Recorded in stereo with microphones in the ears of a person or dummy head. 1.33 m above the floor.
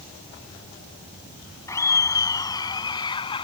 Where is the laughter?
15° left (ahead or behind); by 3.4 s 25° left (ahead or behind).